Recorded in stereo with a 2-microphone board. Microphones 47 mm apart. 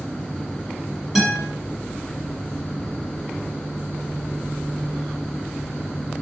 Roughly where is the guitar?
Centre.